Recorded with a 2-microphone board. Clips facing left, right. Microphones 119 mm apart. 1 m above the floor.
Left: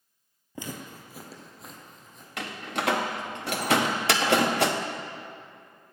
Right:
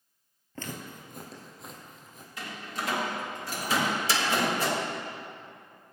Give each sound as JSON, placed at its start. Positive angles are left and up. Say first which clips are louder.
{"t": 0.6, "sound": "footsteps", "louder": "left 1 dB", "side_deg": 15, "distance_m": 1.3}
{"t": 2.4, "sound": "a door slam", "louder": "left 5 dB", "side_deg": 70, "distance_m": 0.8}
{"t": 3.7, "sound": "a microwave", "louder": "left 3 dB", "side_deg": 65, "distance_m": 0.9}